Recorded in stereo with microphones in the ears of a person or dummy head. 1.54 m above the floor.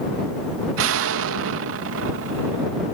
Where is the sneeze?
No sneeze in this recording.